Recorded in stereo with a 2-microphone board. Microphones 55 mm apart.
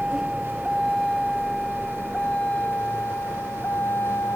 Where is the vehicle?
5° right (ahead or behind); by 4.4 s 45° left (ahead or behind).